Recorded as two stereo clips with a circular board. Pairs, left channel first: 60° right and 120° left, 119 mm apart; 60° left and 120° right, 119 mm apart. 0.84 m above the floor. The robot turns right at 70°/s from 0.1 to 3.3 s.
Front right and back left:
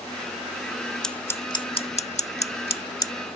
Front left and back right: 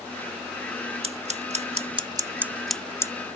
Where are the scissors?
145° right; by 3.1 s straight ahead.